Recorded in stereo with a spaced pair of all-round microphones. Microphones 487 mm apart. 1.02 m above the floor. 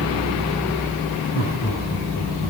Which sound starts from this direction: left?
Laughter, at 1.3 s.